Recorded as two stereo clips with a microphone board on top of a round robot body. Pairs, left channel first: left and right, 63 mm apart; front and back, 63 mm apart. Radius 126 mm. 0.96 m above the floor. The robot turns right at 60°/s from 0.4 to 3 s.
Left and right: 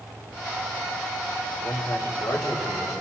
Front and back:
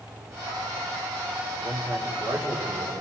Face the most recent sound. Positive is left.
turn(degrees=-145)